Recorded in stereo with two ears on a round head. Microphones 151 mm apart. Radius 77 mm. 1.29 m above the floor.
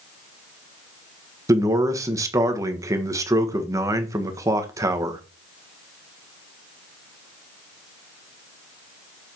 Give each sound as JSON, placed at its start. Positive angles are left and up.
{"t": 1.5, "sound": "a man speaking", "side_deg": -20, "distance_m": 1.3}